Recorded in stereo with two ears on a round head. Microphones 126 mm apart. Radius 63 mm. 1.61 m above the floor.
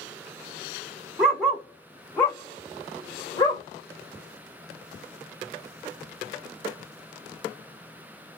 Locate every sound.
1.2 s a dog barking: 5° right (ahead or behind), 1.4 m; by 3.6 s 30° left (ahead or behind), 2 m